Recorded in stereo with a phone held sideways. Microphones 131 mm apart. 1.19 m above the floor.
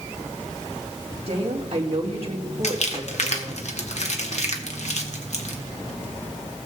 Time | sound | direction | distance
1.3 | a woman speaking | 50° right (ahead or behind) | 2 m
2.6 | crumpling | 60° left (ahead or behind) | 1.3 m